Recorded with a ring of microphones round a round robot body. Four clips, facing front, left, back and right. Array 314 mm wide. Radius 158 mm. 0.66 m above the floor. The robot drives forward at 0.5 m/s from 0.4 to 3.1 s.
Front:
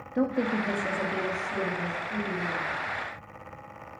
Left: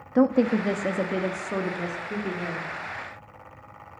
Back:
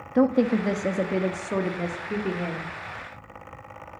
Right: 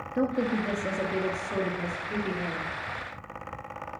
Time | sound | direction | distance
0.1 | a woman speaking | 130° left | 0.7 m